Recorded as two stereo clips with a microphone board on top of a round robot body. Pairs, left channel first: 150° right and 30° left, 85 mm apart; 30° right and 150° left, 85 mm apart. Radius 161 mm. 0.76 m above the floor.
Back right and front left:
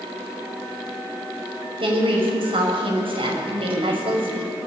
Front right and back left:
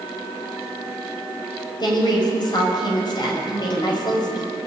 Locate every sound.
1.8 s a woman speaking: 10° left, 6 m